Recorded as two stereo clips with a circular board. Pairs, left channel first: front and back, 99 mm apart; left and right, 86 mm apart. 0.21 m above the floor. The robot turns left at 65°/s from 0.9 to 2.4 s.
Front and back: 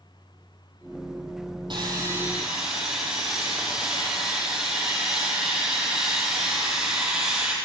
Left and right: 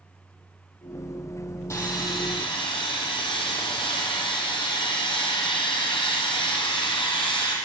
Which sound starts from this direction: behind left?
Sawing, at 1.7 s.